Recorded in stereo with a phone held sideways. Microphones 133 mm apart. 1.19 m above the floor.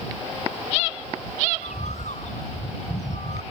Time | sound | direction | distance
1.6 | a bird | 65° left (ahead or behind) | ?